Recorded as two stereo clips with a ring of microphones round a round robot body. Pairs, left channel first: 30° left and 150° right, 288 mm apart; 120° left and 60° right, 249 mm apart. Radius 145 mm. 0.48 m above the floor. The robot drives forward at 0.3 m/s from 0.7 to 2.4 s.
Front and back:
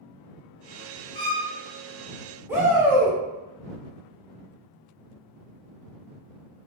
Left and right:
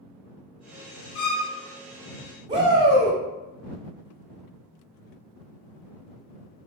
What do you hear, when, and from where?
1.1 s a violin: 105° left, 1.3 m; by 1.5 s 110° left, 1.4 m
2.5 s a shout: 80° right, 0.7 m